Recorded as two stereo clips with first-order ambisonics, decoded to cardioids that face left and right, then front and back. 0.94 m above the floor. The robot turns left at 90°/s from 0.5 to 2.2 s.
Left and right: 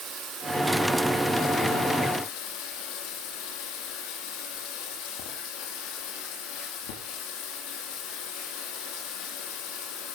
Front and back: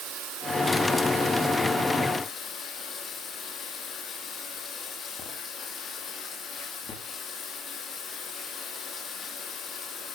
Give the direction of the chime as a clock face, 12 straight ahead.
I don't hear a chime.